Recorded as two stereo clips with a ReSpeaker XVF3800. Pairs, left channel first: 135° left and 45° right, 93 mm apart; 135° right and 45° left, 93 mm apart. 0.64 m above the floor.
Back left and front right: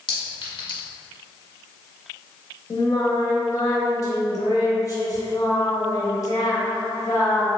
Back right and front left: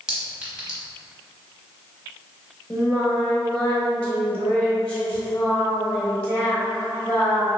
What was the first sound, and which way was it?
A clink, 125° left.